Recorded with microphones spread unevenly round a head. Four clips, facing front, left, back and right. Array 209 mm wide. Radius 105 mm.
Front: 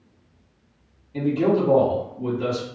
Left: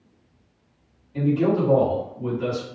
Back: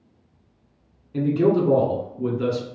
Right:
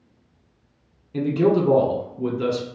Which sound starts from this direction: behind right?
A man speaking, at 1.1 s.